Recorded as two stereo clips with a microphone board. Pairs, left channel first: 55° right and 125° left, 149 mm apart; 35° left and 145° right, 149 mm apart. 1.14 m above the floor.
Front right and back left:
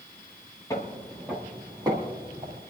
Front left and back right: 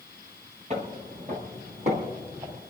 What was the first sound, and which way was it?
Footsteps, 120° right.